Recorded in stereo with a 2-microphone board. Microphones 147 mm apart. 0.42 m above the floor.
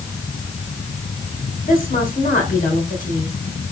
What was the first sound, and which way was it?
A woman speaking, 65° left (ahead or behind).